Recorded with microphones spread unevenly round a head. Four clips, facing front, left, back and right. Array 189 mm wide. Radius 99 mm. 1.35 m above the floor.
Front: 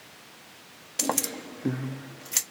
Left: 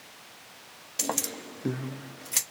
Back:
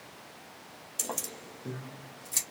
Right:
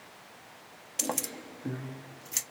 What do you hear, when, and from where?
1.0 s keys jangling: straight ahead, 0.6 m; by 2.4 s 55° left, 1.1 m